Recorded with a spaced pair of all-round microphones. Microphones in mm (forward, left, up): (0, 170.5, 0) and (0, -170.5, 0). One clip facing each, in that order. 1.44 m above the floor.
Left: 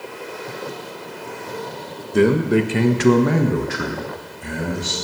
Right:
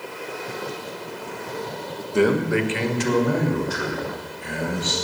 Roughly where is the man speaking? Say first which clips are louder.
Left 4 dB; left.